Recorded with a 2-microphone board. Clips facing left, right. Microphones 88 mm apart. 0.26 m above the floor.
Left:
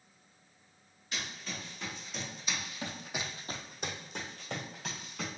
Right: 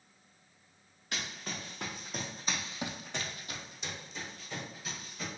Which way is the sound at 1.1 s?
65° right (ahead or behind).